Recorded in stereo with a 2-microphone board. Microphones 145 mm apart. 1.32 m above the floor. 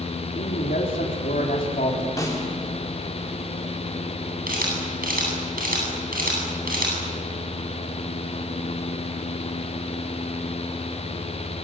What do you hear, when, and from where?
0.3 s a man speaking: 80° left, 4 m
2.2 s a snare drum: 25° left (ahead or behind), 4.5 m
4.5 s a camera shutter: 85° right, 10 m